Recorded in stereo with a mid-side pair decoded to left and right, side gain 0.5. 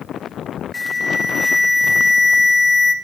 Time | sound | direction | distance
0.7 | an alarm | 30° left | 3.5 m